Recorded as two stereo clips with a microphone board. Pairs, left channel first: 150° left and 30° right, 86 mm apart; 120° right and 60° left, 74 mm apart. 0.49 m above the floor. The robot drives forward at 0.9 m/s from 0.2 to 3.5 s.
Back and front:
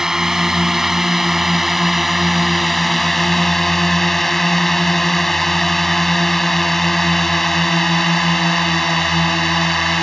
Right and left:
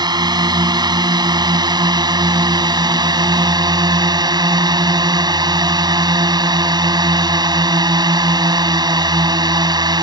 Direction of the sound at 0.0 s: 55° left.